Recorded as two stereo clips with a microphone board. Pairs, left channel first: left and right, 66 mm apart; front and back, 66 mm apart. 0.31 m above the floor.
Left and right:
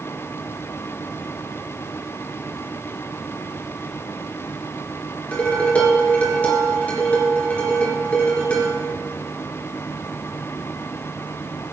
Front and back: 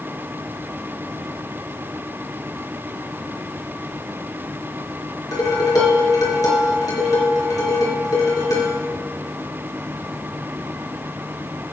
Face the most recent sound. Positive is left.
turn(degrees=25)